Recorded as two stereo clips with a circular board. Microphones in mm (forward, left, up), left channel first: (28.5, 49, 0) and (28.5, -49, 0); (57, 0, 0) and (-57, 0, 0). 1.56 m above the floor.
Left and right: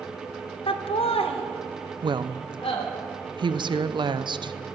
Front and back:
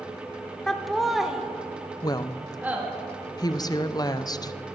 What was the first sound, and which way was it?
Laughter, 85° left.